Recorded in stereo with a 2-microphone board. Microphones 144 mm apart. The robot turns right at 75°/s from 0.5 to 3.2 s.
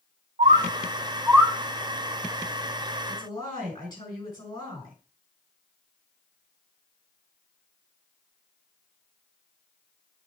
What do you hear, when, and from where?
0.4 s a bird: 55° right (ahead or behind), 0.5 m; by 1.5 s 5° left (ahead or behind), 0.5 m
3.1 s a woman speaking: 40° left (ahead or behind), 5.5 m; by 5.0 s 30° left (ahead or behind), 5.5 m